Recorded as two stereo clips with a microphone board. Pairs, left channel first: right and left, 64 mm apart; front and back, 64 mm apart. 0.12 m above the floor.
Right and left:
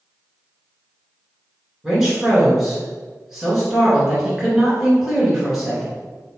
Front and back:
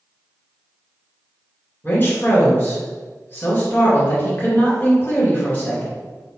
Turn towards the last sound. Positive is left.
turn(degrees=10)